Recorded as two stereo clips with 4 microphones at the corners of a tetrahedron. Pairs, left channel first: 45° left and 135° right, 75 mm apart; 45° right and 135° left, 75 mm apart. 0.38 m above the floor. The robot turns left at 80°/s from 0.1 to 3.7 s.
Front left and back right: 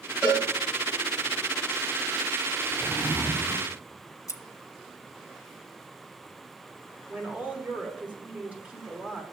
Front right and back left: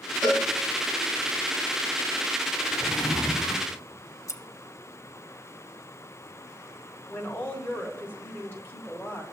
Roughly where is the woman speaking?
Right.